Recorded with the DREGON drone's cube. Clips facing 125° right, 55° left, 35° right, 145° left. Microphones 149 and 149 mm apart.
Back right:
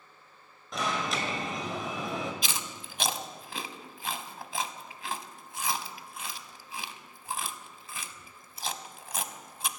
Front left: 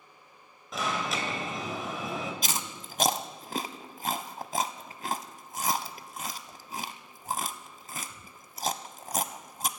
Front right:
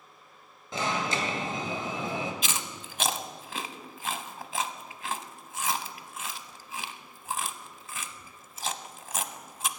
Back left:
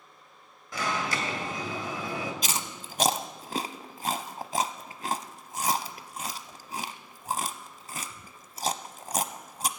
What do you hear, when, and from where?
0.7 s an alarm: 30° right, 1.9 m
2.4 s chewing: 100° left, 0.6 m